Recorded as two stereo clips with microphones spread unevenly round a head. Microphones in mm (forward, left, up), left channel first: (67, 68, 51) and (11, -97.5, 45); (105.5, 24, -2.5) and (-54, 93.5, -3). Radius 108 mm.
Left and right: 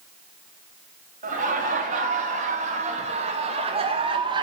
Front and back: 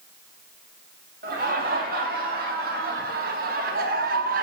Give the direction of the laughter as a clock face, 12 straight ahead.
5 o'clock.